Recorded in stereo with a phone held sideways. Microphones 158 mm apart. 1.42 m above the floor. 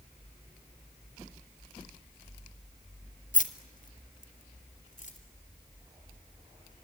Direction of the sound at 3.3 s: 55° left (ahead or behind).